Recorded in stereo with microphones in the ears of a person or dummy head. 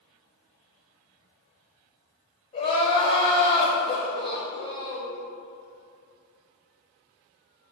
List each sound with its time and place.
2.5 s crying: 25° left (ahead or behind), 0.8 m